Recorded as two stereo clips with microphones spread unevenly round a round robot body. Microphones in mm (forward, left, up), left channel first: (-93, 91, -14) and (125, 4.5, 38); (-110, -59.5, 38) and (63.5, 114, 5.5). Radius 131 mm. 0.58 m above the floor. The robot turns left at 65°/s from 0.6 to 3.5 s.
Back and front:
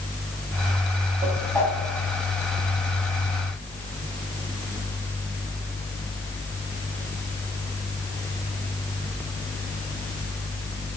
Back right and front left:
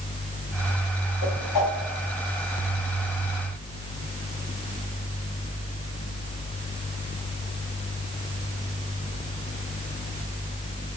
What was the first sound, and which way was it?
A whoosh, 95° right.